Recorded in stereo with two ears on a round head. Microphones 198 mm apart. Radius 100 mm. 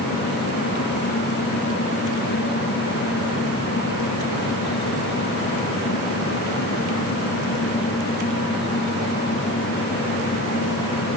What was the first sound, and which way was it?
Only background noise.